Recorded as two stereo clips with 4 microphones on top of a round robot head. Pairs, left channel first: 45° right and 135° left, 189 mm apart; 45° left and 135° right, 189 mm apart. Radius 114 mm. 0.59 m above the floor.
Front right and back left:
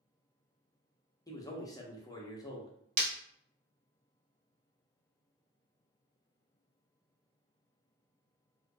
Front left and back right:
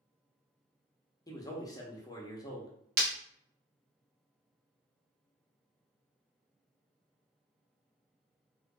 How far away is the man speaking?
About 0.7 m.